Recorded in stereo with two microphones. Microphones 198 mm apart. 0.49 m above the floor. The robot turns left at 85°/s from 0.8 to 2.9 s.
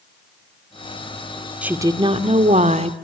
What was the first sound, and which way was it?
A woman speaking, 10° right.